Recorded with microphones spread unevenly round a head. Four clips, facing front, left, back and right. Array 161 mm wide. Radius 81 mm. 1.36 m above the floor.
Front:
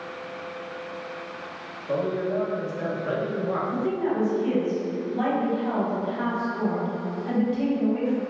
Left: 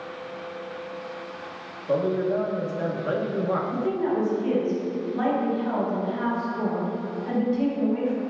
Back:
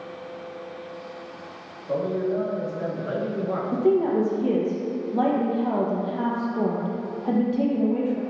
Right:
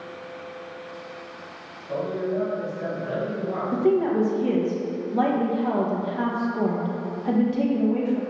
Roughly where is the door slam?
I don't hear a door slam.